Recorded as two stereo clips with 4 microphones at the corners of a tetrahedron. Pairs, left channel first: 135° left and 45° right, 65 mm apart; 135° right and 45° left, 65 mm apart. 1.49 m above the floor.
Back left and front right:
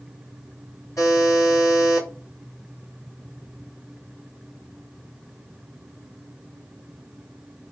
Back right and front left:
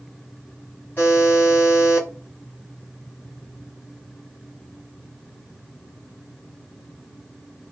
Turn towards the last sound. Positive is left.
turn(degrees=170)